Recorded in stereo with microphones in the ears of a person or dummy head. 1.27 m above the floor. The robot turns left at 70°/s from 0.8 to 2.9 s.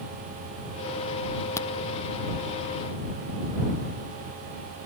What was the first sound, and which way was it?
A crack, 15° left (ahead or behind).